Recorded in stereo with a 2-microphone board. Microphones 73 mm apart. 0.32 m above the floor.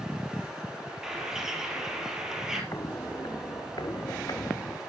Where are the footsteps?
45° left (ahead or behind), 1.5 m; by 4.8 s 50° left (ahead or behind), 2 m.